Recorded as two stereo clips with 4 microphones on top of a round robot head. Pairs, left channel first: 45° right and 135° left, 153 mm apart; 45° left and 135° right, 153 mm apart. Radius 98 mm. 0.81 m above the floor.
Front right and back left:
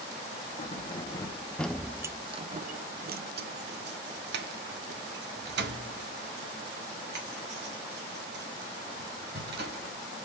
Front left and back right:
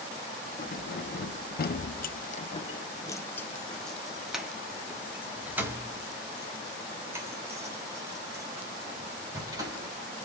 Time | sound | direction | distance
0.6 | keys jangling | 10° left | 1.1 m